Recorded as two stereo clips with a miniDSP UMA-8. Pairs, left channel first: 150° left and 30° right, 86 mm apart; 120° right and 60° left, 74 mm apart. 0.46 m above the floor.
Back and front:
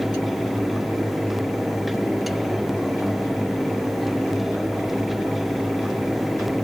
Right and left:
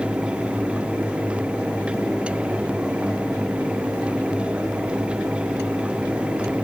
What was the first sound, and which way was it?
Only background noise.